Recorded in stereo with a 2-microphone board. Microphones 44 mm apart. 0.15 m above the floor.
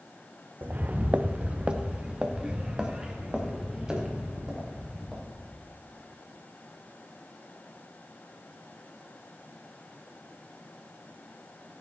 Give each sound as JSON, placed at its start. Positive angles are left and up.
{"t": 0.6, "sound": "footsteps", "side_deg": -45, "distance_m": 0.5}